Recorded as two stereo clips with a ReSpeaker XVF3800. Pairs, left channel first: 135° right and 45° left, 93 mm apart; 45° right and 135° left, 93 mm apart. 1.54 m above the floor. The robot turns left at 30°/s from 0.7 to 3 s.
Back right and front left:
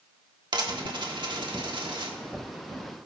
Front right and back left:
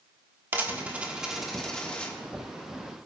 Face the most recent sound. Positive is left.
turn(degrees=0)